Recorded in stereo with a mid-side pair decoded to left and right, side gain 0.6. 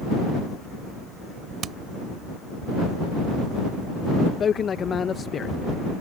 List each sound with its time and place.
1.6 s hammering: 45° right
4.4 s a man speaking: 35° left